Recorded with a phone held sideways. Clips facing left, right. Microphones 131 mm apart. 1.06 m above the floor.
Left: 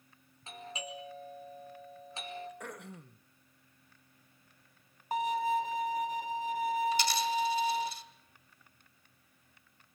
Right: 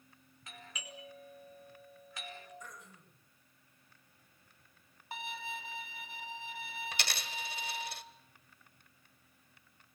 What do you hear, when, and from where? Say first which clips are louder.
0.5 s a doorbell: left 8 dB; 30° left (ahead or behind), 5.5 m
2.6 s throat clearing: left 8 dB; 70° left (ahead or behind), 1.3 m
5.1 s a violin: left 14 dB; 40° left (ahead or behind), 1.1 m
6.9 s a dropped coin: left 13 dB; 65° right (ahead or behind), 1.8 m